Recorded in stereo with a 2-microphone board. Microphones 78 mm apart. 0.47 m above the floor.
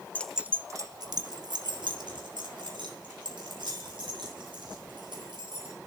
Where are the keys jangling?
20° left (ahead or behind), 0.6 m; by 5.7 s 80° right, 7 m.